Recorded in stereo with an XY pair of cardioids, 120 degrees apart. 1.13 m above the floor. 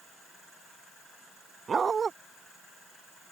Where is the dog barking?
30° right.